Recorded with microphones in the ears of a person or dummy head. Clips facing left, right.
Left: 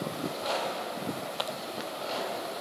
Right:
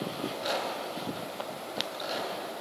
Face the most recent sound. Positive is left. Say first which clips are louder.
# even
turn(degrees=-15)  # may be behind; listen again after turning